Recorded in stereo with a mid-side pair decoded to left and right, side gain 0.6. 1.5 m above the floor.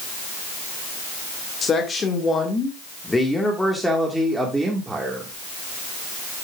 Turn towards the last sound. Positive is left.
turn(degrees=-20)